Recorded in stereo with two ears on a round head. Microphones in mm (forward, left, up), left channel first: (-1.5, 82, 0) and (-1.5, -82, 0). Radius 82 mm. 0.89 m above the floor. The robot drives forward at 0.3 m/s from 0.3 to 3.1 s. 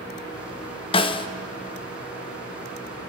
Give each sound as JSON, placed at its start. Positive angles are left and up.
{"t": 0.9, "sound": "a snare drum", "side_deg": 30, "distance_m": 0.8}